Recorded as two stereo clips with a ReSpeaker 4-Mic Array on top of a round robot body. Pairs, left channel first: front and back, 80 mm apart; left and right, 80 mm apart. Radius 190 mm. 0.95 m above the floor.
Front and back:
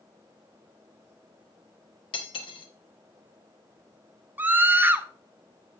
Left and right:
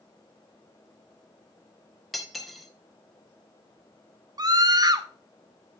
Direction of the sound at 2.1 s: Straight ahead.